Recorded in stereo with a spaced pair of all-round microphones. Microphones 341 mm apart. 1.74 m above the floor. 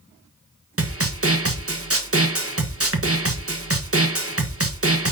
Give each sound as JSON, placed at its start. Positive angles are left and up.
{"t": 0.8, "sound": "a snare drum", "side_deg": -40, "distance_m": 1.2}